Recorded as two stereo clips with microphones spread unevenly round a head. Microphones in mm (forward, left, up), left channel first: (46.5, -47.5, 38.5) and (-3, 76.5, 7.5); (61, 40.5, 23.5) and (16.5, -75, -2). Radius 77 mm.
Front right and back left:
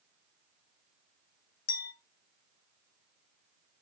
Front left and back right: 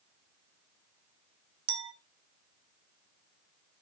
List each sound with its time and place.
1.7 s a clink: 60° right, 2 m